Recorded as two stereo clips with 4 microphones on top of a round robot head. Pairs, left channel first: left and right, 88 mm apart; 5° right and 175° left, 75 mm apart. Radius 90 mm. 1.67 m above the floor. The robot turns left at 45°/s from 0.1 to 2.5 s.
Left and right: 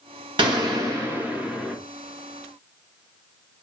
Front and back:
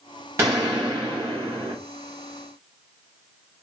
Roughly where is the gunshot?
Behind right.